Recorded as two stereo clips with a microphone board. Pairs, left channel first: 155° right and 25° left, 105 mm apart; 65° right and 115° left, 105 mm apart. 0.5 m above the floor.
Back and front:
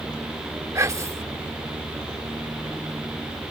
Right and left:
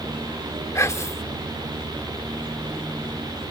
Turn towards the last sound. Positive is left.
turn(degrees=-20)